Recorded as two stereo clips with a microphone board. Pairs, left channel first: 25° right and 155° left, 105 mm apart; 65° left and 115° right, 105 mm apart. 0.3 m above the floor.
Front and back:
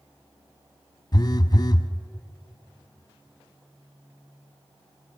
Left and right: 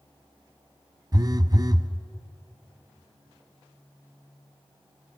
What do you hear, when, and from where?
1.1 s a phone buzzing: 65° right, 0.7 m